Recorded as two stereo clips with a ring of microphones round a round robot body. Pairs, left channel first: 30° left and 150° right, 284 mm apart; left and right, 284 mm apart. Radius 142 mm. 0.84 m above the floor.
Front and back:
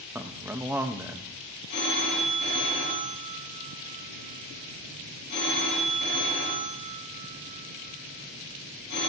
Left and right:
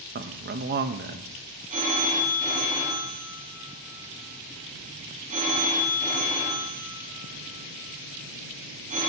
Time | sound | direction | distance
0.1 | a man speaking | 75° right | 0.8 m
1.7 | a phone ringing | 25° right | 4.5 m